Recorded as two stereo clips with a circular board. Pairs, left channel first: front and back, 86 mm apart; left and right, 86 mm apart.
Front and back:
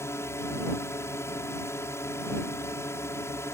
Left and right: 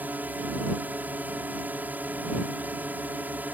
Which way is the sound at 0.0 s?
35° right.